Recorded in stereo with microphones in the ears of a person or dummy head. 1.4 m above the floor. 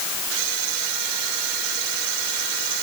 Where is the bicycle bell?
I don't hear a bicycle bell.